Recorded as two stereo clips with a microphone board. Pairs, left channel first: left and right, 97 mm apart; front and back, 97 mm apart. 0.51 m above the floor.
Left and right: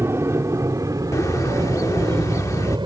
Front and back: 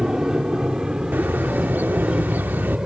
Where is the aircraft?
105° right; by 2.9 s 100° right.